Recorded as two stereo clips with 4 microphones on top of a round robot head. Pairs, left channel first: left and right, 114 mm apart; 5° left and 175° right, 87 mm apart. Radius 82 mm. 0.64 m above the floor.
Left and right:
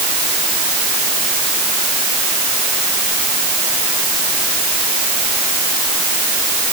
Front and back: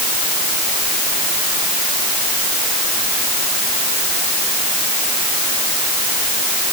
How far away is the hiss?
No hiss in this recording.